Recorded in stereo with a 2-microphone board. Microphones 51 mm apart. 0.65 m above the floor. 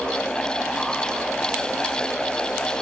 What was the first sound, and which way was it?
Only background noise.